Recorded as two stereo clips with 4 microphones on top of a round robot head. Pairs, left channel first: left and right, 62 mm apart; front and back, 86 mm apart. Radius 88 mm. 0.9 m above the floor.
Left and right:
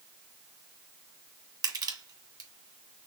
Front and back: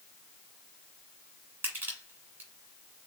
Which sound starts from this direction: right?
Crushing, at 1.6 s.